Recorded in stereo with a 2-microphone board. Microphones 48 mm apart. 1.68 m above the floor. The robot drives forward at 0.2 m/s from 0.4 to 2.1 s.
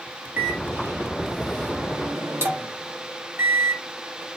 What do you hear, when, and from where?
0.4 s a microwave: 60° right (ahead or behind), 0.8 m; by 3.8 s 55° right (ahead or behind), 0.8 m